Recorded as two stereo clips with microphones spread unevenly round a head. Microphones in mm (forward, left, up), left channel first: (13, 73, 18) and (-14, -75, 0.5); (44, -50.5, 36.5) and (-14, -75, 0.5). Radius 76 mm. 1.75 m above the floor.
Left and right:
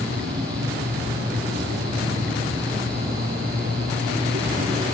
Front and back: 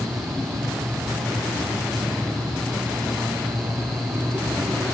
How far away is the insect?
About 6.5 m.